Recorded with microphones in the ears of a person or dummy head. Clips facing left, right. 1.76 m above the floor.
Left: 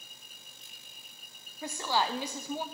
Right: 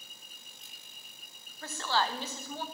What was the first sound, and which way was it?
A woman speaking, 15° left (ahead or behind).